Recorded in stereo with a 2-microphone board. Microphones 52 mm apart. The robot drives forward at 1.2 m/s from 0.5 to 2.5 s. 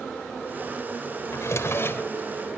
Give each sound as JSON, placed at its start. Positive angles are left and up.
{"t": 1.3, "sound": "a drawer", "side_deg": 70, "distance_m": 1.2}